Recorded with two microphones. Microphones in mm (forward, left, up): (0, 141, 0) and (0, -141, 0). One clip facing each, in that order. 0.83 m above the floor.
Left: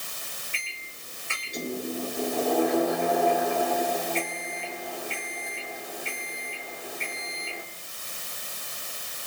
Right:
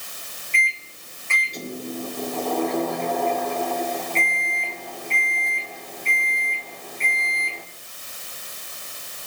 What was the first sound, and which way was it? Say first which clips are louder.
A microwave: right 7 dB; 10° left (ahead or behind).